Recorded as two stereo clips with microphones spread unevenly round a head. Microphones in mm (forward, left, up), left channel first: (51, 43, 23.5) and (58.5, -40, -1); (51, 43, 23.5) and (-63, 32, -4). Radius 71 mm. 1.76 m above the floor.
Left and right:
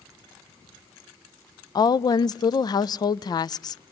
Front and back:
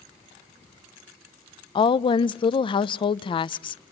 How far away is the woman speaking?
About 0.5 m.